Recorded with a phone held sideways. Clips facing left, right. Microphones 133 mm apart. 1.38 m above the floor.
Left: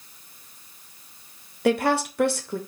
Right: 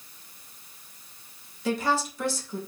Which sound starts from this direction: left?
A woman speaking, at 1.6 s.